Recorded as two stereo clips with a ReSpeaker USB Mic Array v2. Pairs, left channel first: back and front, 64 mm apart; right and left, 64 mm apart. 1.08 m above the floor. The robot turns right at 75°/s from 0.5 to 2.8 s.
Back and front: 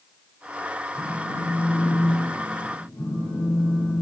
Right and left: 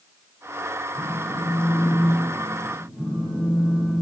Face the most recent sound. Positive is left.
turn(degrees=130)